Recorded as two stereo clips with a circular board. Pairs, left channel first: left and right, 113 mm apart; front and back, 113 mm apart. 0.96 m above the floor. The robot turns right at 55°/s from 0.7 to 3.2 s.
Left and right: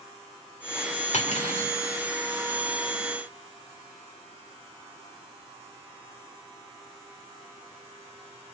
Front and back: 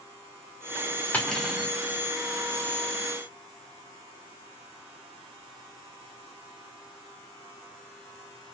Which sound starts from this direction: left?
Cutlery clinking, at 1.1 s.